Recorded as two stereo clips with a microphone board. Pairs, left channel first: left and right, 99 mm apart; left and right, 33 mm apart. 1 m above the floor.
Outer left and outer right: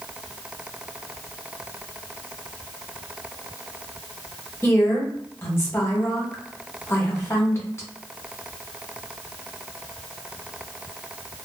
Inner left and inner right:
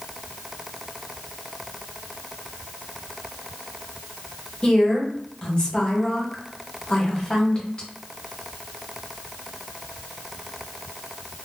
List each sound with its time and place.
4.6 s a woman speaking: 25° left (ahead or behind), 1.0 m